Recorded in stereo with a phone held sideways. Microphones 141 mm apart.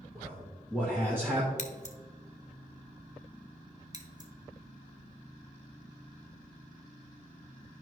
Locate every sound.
0.1 s a man speaking: 15° right (ahead or behind), 1.6 m
1.6 s scissors: 50° left (ahead or behind), 1.0 m
3.9 s scissors: 25° right (ahead or behind), 1.1 m